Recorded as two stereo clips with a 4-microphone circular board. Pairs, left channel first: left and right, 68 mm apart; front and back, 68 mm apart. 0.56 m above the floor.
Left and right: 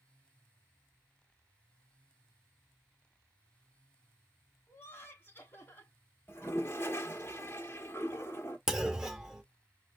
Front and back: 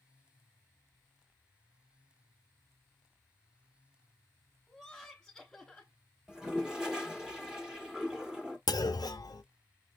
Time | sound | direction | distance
4.7 | laughter | 80° left | 1.3 m
6.3 | a toilet flushing | 105° left | 1.1 m
8.7 | a clunk | 10° right | 0.5 m